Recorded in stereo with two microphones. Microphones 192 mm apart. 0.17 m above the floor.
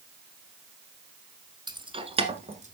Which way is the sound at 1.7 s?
25° right (ahead or behind).